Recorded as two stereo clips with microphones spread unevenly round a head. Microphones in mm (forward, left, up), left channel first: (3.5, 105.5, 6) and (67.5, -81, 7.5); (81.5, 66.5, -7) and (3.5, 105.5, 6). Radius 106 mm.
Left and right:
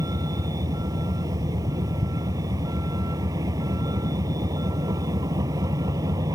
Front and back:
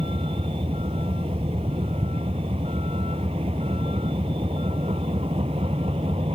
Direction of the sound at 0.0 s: 145° right.